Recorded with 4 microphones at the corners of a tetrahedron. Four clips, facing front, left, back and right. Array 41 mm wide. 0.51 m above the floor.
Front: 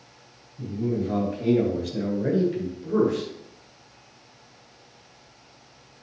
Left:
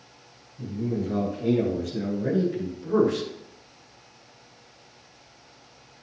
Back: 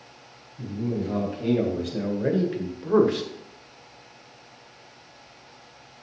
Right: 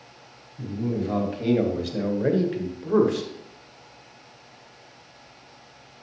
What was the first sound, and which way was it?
A man speaking, 85° right.